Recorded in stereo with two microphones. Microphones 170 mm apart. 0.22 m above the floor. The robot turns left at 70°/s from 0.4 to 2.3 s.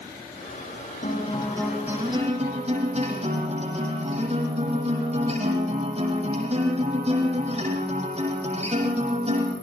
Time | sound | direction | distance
1.0 | a guitar | 50° left | 9 m